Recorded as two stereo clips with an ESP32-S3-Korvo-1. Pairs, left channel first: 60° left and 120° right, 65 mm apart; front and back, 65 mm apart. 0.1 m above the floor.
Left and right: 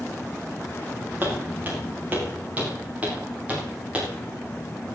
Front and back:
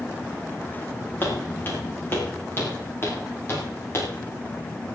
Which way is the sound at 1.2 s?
60° right.